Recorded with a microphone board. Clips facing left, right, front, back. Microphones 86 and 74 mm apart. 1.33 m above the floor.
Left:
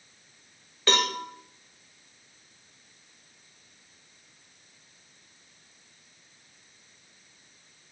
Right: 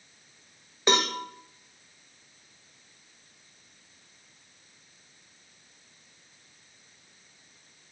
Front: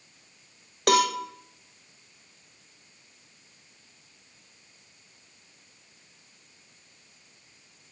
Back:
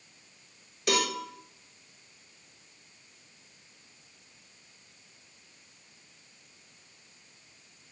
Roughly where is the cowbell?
Ahead.